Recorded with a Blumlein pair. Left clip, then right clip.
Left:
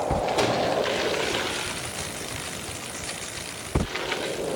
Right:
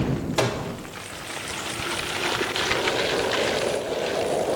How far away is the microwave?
About 3 m.